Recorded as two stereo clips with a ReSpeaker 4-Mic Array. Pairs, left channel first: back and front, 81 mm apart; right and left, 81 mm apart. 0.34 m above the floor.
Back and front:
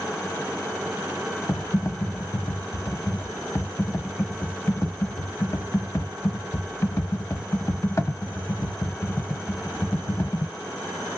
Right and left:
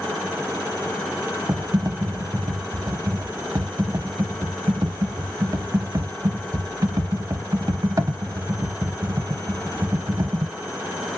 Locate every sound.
1.5 s typing on a keyboard: 130° left, 0.5 m